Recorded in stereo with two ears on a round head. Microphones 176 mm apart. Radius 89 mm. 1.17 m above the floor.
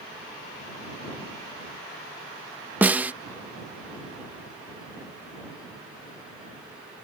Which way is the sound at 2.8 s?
10° right (ahead or behind).